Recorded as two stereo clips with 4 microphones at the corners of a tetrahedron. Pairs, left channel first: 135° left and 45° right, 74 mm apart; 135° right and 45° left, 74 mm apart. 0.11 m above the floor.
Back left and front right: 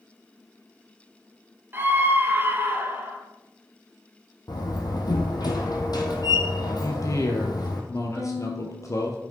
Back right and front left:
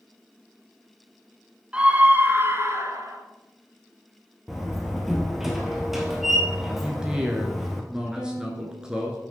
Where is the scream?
15° right, 1.2 m; by 3.2 s 15° left, 1.9 m.